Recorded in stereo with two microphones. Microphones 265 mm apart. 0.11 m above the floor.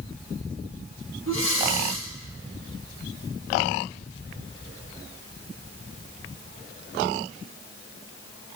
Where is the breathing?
50° right (ahead or behind), 4 m.